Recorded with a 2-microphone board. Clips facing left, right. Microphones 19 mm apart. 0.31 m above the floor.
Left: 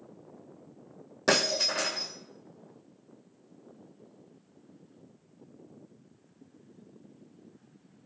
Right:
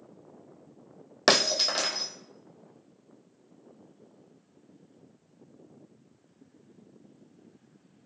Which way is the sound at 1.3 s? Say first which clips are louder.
Right 3 dB; 60° right (ahead or behind).